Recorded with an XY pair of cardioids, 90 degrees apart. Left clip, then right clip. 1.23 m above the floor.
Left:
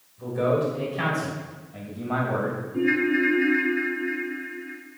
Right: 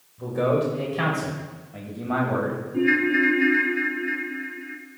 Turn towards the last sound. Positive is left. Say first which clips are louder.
# right 2 dB
turn(degrees=-25)